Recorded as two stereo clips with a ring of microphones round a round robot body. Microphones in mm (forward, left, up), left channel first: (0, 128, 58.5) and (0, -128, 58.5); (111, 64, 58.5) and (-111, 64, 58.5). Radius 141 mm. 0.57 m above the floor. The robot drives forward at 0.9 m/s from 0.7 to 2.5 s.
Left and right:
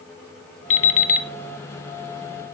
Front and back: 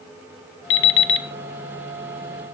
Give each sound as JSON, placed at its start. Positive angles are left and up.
{"t": 0.7, "sound": "an alarm clock", "azimuth_deg": 25, "distance_m": 2.0}